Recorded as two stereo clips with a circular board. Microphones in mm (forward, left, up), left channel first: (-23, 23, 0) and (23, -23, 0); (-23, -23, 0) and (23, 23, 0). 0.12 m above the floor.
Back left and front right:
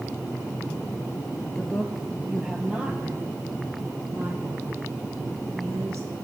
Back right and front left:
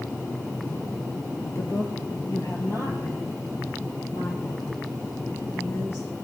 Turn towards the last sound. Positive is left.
turn(degrees=-85)